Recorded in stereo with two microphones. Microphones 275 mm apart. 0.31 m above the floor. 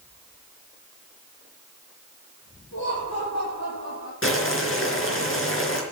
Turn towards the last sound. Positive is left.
turn(degrees=50)  # may be behind; listen again after turning